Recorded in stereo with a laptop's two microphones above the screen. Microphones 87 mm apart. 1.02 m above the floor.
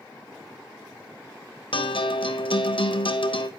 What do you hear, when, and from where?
1.7 s a guitar: 75° left (ahead or behind), 0.8 m